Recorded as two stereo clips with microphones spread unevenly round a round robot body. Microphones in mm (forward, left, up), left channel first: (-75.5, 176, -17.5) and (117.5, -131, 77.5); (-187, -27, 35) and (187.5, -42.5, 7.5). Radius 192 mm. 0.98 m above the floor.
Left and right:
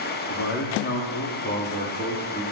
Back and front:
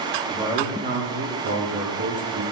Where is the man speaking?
80° left, 2.5 m; by 2.4 s 40° left, 3 m.